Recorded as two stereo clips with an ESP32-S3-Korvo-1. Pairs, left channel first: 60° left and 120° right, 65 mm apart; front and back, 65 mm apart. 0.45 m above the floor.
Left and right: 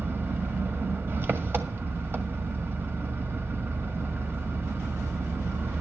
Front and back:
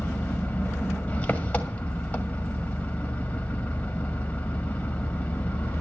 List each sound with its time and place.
0.0 s an engine running: 65° right, 1.5 m